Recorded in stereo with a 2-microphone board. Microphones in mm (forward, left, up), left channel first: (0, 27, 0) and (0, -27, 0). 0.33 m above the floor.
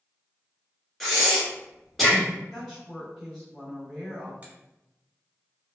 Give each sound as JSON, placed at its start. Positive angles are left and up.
{"t": 1.0, "sound": "breathing", "side_deg": 0, "distance_m": 1.0}
{"t": 2.5, "sound": "a woman speaking", "side_deg": 5, "distance_m": 1.9}
{"t": 4.4, "sound": "a finger snap", "side_deg": -30, "distance_m": 1.0}